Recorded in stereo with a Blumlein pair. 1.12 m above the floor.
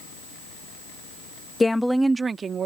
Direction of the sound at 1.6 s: 10° left.